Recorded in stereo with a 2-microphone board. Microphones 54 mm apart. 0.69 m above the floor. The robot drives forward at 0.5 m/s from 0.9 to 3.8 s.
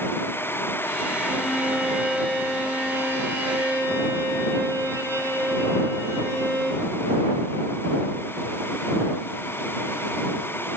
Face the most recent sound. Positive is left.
turn(degrees=-60)  # may be behind; listen again after turning